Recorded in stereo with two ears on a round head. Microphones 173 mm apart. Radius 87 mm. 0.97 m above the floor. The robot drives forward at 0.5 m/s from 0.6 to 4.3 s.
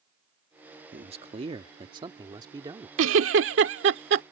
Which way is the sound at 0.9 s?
35° right (ahead or behind).